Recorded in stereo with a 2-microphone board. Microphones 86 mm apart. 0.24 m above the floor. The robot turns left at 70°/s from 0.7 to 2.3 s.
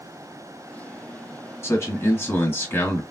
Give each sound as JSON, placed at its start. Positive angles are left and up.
{"t": 1.6, "sound": "a man speaking", "azimuth_deg": 100, "distance_m": 1.5}